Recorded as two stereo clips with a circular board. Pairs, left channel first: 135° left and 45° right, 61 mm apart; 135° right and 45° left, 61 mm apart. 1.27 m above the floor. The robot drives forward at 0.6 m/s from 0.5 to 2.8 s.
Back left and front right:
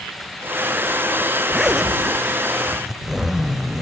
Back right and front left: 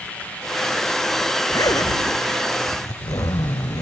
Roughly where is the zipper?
Behind right.